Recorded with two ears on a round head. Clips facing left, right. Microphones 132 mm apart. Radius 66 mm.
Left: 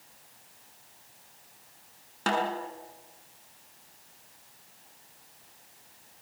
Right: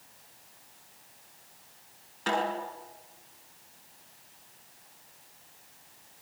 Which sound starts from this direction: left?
A snare drum, at 2.3 s.